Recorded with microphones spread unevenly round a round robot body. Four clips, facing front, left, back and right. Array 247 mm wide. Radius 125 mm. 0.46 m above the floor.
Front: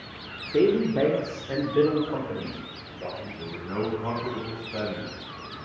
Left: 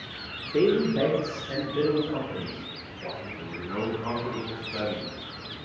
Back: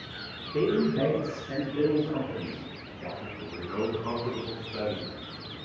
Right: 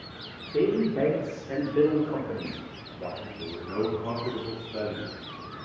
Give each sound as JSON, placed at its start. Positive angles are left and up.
{"t": 0.5, "sound": "a woman speaking", "azimuth_deg": 20, "distance_m": 1.1}
{"t": 3.4, "sound": "a man speaking", "azimuth_deg": 5, "distance_m": 3.5}